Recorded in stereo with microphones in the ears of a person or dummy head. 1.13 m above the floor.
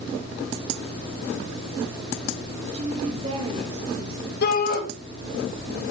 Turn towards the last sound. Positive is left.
turn(degrees=60)  # may be behind; listen again after turning